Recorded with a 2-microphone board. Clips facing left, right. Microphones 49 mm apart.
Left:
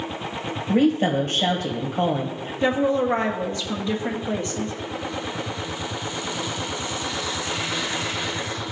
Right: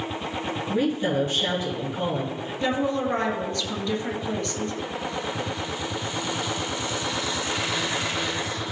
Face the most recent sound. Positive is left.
turn(degrees=25)  # may be behind; listen again after turning